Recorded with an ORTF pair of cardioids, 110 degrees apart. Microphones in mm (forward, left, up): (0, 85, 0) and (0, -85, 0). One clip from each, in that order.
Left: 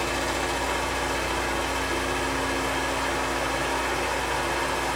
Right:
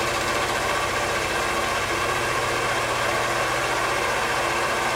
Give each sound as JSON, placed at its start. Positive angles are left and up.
{"t": 0.0, "sound": "a fan", "azimuth_deg": -35, "distance_m": 0.8}